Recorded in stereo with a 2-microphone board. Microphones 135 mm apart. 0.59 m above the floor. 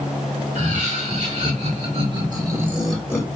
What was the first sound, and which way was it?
Laughter, 65° right (ahead or behind).